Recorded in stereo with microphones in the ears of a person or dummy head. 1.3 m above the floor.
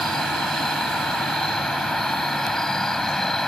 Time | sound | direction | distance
0.0 | an insect | 5° left (ahead or behind) | ?